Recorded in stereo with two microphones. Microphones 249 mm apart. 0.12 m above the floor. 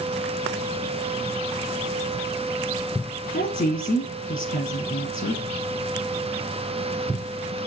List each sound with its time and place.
3.3 s a woman speaking: 35° left (ahead or behind), 1.8 m